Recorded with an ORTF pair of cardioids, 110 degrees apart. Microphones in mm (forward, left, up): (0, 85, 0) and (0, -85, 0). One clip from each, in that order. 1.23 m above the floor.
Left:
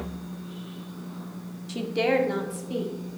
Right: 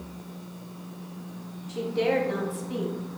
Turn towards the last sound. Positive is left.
turn(degrees=10)